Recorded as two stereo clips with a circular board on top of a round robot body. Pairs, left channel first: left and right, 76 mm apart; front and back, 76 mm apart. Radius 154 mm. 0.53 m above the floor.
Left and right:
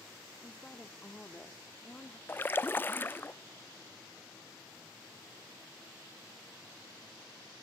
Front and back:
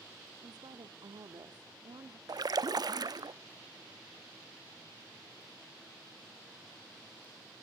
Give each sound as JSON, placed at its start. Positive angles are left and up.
{"t": 0.4, "sound": "a woman speaking", "azimuth_deg": 165, "distance_m": 1.5}
{"t": 2.3, "sound": "a splash", "azimuth_deg": 150, "distance_m": 0.6}